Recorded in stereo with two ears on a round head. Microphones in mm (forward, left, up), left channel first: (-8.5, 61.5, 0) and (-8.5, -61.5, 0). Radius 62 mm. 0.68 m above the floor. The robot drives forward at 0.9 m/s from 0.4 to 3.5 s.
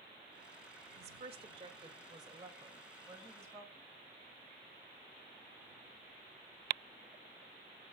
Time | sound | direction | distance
1.0 | a woman speaking | 50° right (ahead or behind) | 1.5 m